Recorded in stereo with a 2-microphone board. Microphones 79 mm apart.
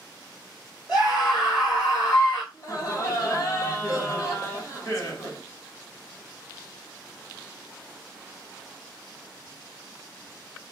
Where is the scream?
45° left (ahead or behind), 2.5 m.